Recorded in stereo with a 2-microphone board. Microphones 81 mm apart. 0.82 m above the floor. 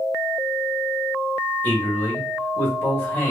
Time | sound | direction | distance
1.6 | a man speaking | 25° left (ahead or behind) | 1.6 m